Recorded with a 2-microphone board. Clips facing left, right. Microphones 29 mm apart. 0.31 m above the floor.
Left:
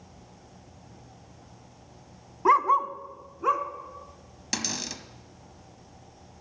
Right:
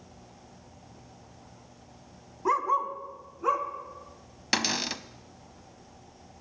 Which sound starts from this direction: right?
A cupboard door, at 4.5 s.